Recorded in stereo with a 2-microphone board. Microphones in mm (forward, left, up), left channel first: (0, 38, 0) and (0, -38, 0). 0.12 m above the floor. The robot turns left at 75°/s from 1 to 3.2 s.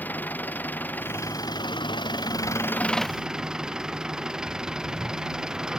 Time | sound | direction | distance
0.0 | an engine running | 155° left | ?